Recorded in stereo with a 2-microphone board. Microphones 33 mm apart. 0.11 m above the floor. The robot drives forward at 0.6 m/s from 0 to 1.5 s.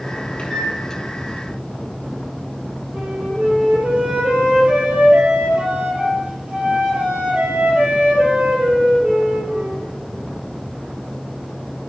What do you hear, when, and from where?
0.4 s a microwave: 35° left (ahead or behind), 2 m
2.9 s a flute: 40° right (ahead or behind), 3 m